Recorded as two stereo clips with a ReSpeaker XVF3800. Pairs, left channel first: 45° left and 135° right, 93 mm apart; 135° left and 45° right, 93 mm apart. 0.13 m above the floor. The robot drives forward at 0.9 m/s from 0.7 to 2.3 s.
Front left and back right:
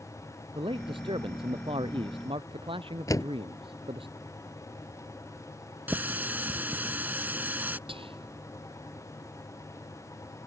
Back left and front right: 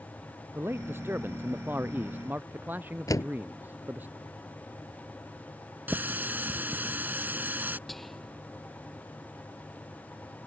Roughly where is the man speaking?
Right.